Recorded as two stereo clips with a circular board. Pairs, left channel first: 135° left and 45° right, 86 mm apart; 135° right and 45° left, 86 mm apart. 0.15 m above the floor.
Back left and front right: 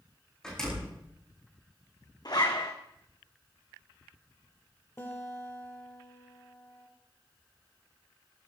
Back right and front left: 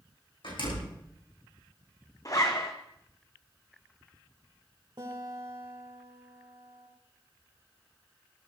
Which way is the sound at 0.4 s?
145° right.